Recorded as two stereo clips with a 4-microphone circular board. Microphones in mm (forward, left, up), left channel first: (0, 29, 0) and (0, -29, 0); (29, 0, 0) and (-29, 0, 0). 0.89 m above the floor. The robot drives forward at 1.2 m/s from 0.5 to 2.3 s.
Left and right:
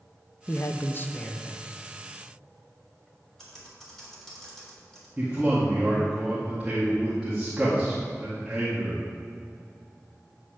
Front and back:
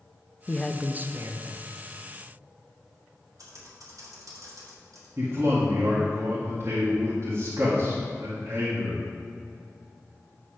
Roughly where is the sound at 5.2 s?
Behind.